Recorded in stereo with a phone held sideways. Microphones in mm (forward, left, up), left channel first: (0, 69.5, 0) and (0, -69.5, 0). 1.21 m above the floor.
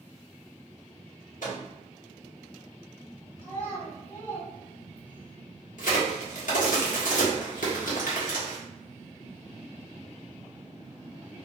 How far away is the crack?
About 1.0 m.